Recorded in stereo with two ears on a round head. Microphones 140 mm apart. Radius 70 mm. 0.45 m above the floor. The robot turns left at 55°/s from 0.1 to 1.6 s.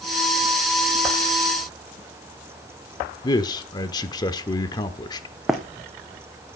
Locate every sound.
3.2 s a man speaking: 25° left (ahead or behind), 0.9 m
5.5 s running footsteps: centre (ahead or behind), 1.3 m